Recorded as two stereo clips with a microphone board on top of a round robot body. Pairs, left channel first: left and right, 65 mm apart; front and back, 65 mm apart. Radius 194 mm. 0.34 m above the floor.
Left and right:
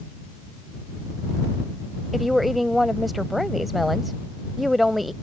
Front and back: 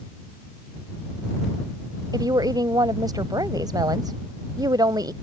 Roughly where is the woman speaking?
Behind.